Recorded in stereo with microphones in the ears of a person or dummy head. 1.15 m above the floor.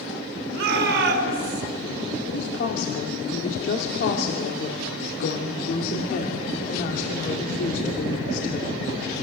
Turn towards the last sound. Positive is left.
turn(degrees=50)  # may be behind; listen again after turning